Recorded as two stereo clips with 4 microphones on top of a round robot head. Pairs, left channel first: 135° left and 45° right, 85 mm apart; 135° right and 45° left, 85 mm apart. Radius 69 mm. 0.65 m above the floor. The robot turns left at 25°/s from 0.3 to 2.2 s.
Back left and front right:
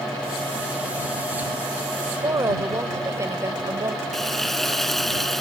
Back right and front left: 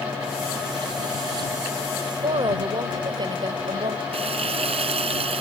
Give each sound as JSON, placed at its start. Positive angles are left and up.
{"t": 2.2, "sound": "a woman speaking", "azimuth_deg": 10}
{"t": 4.1, "sound": "frying", "azimuth_deg": 45}